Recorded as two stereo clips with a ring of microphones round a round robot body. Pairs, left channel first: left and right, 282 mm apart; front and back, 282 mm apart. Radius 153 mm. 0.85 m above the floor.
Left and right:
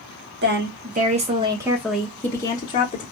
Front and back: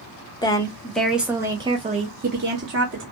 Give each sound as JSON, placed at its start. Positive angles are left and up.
{"t": 0.4, "sound": "a woman speaking", "azimuth_deg": -70, "distance_m": 1.0}